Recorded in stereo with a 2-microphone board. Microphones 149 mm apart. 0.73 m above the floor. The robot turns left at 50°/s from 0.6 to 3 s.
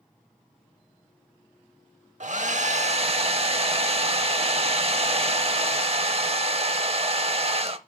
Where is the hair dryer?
85° right, 0.7 m; by 7.8 s 125° right, 0.7 m.